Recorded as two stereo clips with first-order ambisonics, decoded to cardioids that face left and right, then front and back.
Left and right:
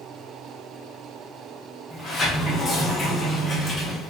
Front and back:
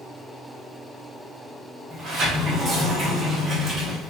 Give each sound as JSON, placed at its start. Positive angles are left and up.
{"t": 1.9, "sound": "a sliding door", "azimuth_deg": 135, "distance_m": 0.7}